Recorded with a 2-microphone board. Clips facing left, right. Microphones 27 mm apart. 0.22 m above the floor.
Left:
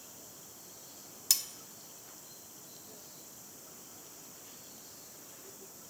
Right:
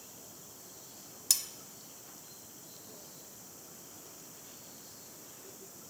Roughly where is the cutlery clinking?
Centre.